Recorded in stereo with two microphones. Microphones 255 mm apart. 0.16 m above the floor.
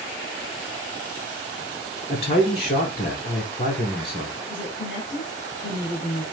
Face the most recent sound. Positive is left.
turn(degrees=50)  # may be behind; listen again after turning